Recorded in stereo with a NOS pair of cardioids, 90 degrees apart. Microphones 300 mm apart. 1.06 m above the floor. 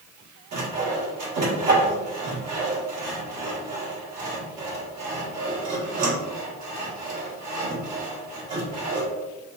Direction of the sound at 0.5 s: 60° right.